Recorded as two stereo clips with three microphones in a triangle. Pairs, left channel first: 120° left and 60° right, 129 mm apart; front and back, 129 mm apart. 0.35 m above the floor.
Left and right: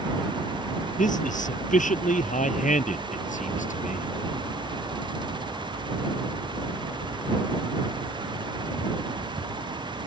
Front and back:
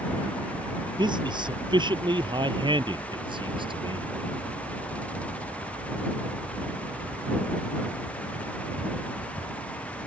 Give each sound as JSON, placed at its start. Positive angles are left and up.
{"t": 1.0, "sound": "a man speaking", "azimuth_deg": 125}